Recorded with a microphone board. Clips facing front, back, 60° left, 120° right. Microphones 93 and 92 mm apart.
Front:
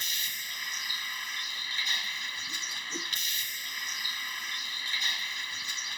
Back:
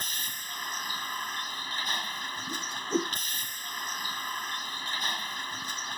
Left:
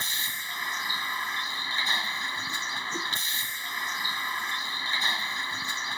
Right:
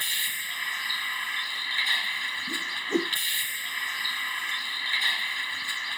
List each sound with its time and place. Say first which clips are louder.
0.0 s a vehicle: back 1 dB, even; 130° left
2.5 s a whoosh: back 10 dB, right 4 dB; 150° right